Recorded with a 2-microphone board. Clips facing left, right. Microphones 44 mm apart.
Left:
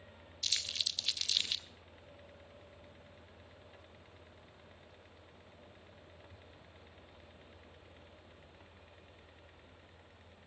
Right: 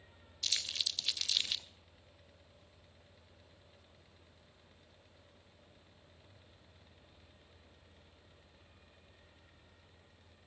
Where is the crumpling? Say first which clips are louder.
Even; centre (ahead or behind), 0.5 m.